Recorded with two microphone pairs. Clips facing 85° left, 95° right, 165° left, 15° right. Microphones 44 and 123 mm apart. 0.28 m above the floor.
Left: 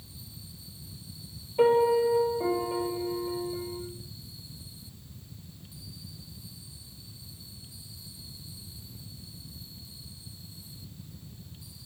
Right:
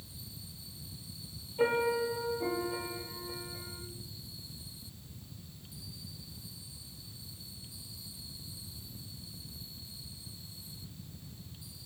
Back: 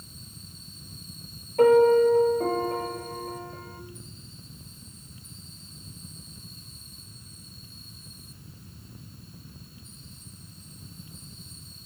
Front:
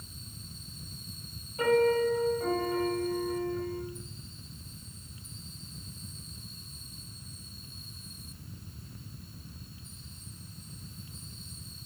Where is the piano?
135° left, 2.5 m.